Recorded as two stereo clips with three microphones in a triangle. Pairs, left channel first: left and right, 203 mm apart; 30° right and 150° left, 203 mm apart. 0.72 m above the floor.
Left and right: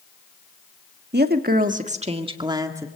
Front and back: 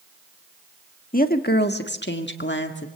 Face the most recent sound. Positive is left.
turn(degrees=-15)